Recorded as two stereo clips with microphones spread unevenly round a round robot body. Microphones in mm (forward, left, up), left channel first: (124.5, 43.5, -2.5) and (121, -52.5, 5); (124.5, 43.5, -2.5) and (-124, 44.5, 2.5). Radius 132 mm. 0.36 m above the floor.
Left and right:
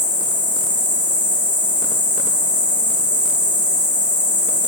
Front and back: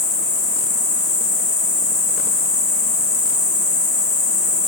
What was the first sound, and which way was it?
An insect, 90° left.